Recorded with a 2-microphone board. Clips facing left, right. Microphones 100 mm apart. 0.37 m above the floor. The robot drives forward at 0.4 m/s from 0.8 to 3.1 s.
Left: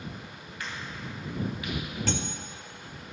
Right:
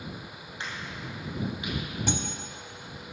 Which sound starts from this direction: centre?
Cutlery clinking, at 2.1 s.